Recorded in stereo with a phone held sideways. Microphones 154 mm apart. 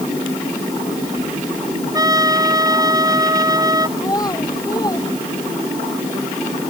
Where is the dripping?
I don't hear dripping.